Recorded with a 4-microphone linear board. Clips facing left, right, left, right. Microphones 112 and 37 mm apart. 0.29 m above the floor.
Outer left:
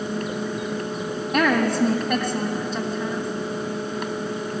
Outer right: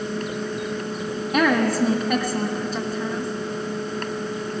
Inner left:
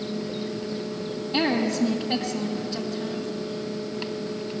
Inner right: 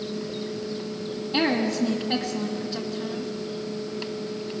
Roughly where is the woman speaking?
Centre.